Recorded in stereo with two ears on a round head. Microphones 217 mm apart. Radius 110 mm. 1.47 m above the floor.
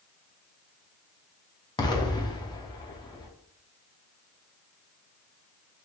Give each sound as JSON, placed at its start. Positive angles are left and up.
{"t": 1.8, "sound": "an explosion", "side_deg": 20, "distance_m": 0.5}